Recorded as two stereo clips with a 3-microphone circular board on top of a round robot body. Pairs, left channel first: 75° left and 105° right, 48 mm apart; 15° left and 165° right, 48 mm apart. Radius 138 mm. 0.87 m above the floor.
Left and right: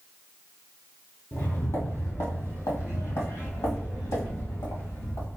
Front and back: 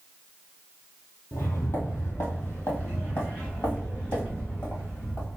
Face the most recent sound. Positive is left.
turn(degrees=80)